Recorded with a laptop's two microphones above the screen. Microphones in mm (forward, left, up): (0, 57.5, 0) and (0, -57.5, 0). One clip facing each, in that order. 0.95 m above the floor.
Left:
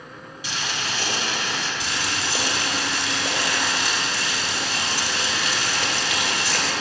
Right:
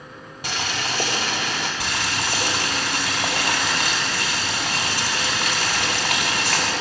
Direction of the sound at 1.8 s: 55° right (ahead or behind).